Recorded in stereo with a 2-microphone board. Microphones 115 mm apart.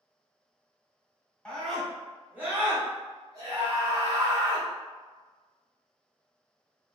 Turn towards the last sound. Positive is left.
turn(degrees=-35)  # may be behind; listen again after turning